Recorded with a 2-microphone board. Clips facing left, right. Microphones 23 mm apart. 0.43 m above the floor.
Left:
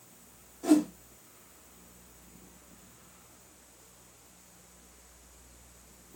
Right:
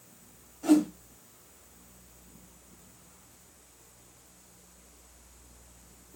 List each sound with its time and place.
0.6 s a whoosh: 5° right (ahead or behind), 2 m